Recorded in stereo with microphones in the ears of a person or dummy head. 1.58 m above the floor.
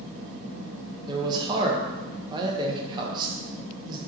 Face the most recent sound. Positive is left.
turn(degrees=-25)  # may be behind; listen again after turning